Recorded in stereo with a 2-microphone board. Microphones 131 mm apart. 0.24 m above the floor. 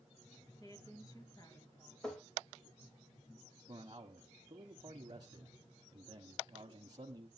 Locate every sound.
0.6 s a woman speaking: 30° left (ahead or behind), 4 m
2.0 s tapping: 5° left (ahead or behind), 2.0 m
3.7 s a man speaking: 35° right (ahead or behind), 1.2 m